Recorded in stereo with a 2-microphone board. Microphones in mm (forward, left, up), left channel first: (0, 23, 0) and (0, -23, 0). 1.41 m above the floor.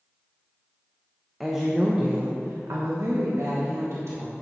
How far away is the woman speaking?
About 1.2 m.